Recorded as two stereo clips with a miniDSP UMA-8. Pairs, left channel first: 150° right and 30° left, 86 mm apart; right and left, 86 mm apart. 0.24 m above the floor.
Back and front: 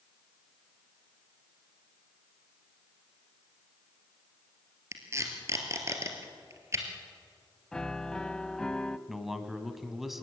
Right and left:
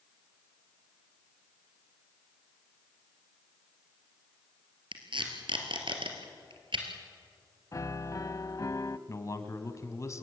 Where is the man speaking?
55° right, 1.9 m.